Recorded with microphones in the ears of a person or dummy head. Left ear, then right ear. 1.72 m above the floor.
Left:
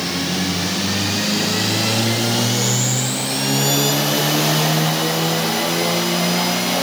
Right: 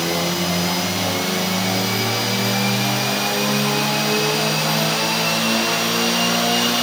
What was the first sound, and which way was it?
Only background noise.